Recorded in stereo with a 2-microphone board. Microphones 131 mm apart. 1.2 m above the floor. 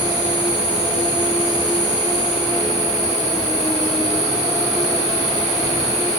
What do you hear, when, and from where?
0.0 s an insect: 30° right (ahead or behind), 1.4 m